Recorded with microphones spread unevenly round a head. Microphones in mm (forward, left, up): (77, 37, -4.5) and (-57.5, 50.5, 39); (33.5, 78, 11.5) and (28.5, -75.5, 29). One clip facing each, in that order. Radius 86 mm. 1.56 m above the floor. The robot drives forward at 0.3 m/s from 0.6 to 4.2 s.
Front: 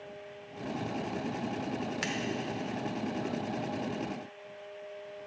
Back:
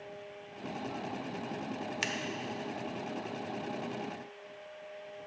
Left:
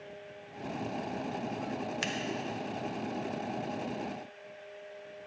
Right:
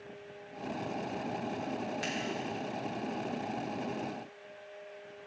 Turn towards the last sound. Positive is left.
turn(degrees=135)